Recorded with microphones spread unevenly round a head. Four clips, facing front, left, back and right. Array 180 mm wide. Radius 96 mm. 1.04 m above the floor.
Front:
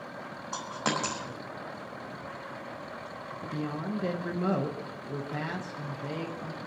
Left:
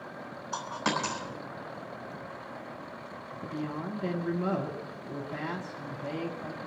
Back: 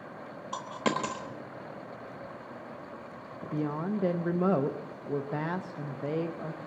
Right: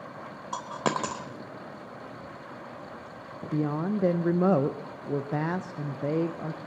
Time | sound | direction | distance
0.5 | a dropped coin | 115° right | 1.2 m
3.5 | a woman speaking | 100° right | 0.6 m